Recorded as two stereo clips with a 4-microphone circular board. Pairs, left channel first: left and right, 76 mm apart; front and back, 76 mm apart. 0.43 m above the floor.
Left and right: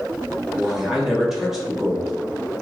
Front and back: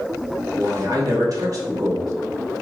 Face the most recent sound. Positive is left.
turn(degrees=-175)